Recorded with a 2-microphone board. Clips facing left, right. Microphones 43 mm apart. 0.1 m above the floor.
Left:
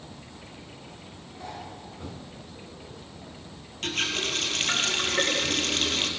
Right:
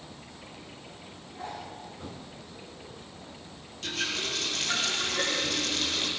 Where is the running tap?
55° left (ahead or behind), 1.8 m.